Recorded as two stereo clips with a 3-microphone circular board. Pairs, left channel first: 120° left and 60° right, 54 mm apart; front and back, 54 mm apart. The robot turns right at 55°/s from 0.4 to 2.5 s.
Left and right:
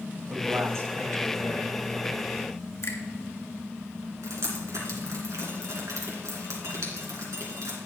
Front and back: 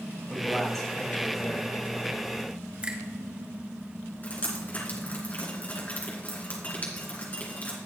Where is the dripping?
55° right, 2.5 m.